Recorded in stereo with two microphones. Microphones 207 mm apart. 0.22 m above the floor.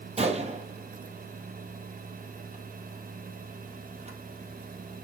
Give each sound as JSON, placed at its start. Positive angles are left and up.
{"t": 0.2, "sound": "a gunshot", "side_deg": -30, "distance_m": 2.5}